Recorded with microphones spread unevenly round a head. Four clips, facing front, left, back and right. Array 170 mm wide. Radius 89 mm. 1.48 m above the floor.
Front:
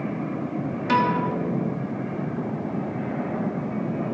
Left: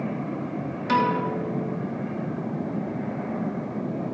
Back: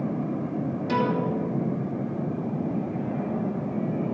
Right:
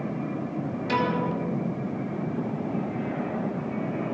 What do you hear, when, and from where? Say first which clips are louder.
0.9 s a piano: left 3 dB, front 4 dB; 30° left, 3 m